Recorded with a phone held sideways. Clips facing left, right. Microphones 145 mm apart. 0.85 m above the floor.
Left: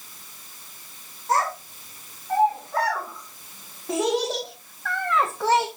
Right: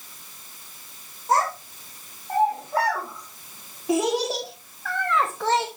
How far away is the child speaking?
About 3 m.